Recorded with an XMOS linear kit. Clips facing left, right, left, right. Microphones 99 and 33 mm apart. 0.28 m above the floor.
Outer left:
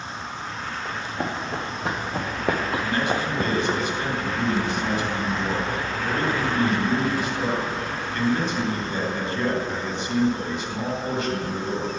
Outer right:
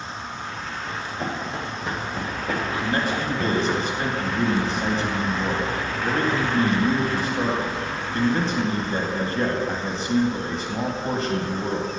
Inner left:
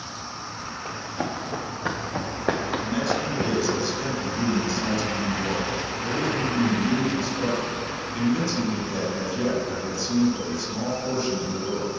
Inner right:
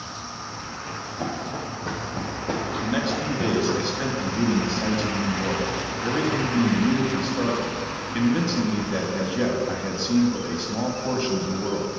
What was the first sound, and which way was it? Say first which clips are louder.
Running footsteps: even, even; 75° left (ahead or behind).